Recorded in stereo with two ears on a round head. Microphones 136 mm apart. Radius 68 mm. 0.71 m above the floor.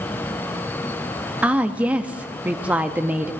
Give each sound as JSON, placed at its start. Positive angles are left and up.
{"t": 1.4, "sound": "a woman speaking", "side_deg": -10, "distance_m": 0.6}